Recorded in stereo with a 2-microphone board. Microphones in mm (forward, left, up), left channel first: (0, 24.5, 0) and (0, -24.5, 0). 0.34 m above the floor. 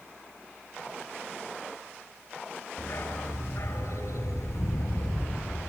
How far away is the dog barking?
About 2.5 m.